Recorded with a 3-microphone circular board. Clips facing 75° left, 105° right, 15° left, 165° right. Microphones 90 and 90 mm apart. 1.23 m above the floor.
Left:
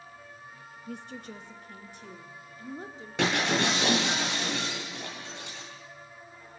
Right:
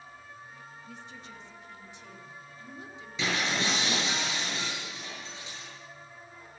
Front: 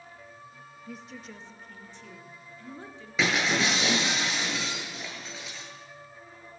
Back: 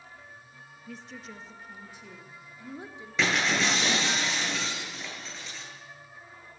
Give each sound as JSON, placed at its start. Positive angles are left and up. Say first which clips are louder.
{"t": 0.9, "sound": "a woman speaking", "louder": "left 9 dB, even", "azimuth_deg": 100, "distance_m": 2.0}
{"t": 3.2, "sound": "breaking glass", "louder": "left 4 dB, even", "azimuth_deg": 100, "distance_m": 9.5}